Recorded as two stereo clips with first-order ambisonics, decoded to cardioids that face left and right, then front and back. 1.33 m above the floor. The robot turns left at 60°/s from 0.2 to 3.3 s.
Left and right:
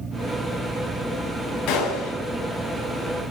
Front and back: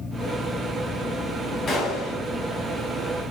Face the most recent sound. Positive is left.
turn(degrees=-35)